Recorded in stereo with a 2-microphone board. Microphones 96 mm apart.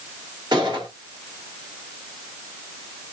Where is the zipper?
No zipper in this recording.